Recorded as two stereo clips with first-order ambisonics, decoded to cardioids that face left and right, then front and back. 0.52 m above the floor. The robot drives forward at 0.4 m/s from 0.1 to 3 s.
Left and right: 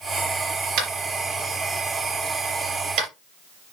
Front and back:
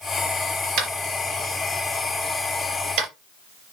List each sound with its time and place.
0.8 s tapping: 135° right, 3.5 m; by 3.1 s 145° right, 4.5 m